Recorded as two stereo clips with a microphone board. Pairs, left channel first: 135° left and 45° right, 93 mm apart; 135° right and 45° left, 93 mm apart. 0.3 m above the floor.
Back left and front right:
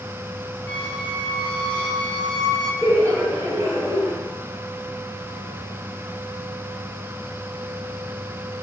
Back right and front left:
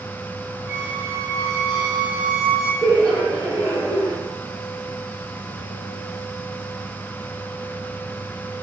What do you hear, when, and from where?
0.7 s a squeak: 100° left, 1.0 m
2.8 s laughter: 10° left, 1.6 m